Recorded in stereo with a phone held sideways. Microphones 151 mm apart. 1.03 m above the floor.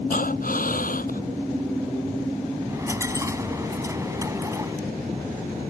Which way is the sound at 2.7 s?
20° right (ahead or behind).